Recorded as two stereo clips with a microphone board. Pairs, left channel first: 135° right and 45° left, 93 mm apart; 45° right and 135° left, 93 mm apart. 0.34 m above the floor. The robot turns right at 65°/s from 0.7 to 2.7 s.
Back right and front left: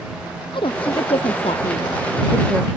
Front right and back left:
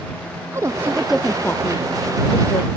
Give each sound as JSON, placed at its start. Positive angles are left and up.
{"t": 0.5, "sound": "a woman speaking", "azimuth_deg": -165}